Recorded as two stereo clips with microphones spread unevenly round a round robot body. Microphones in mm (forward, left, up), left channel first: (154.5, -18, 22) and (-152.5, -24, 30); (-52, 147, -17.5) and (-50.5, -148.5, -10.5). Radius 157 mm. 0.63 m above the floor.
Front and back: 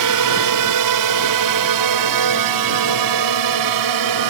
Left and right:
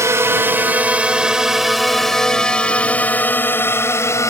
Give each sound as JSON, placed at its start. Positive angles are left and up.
{"t": 0.0, "sound": "a drone", "azimuth_deg": -170}